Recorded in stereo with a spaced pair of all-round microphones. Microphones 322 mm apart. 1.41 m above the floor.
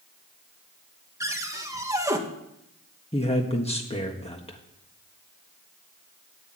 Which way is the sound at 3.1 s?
20° left (ahead or behind).